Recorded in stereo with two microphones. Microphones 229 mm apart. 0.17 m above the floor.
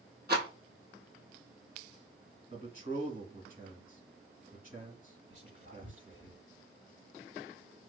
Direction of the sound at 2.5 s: 35° right (ahead or behind).